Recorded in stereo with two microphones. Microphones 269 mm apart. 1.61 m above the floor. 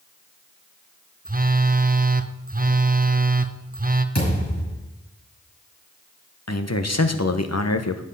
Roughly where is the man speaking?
Left.